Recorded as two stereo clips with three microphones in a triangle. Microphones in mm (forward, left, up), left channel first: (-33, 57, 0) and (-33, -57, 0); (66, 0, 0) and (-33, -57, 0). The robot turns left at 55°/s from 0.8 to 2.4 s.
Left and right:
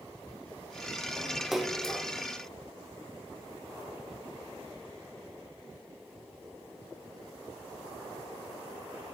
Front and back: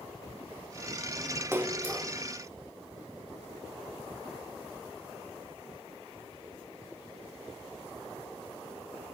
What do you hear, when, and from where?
1.5 s a splash: 175° right, 0.9 m; by 2.1 s 155° left, 0.9 m